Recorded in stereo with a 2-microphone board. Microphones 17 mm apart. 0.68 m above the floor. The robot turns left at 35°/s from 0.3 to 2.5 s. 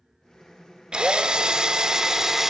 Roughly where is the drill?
Right.